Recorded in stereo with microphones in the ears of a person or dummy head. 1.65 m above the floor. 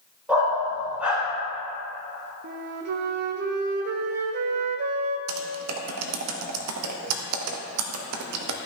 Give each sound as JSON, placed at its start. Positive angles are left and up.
{"t": 0.3, "sound": "a dog barking", "side_deg": -10, "distance_m": 3.0}
{"t": 2.4, "sound": "a flute", "side_deg": -50, "distance_m": 0.5}
{"t": 5.3, "sound": "typing on a keyboard", "side_deg": -80, "distance_m": 0.8}